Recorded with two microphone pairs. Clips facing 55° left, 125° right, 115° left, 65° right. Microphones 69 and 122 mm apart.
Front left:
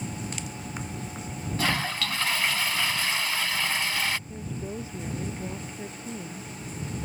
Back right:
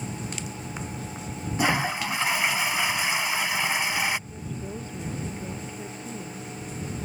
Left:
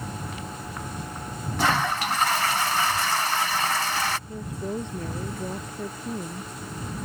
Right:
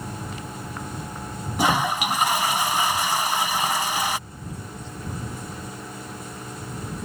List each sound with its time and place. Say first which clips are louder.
1.6 s a toilet flushing: back right 4 dB, right 2 dB; 120° right
4.3 s a woman speaking: even, left 7 dB; 135° left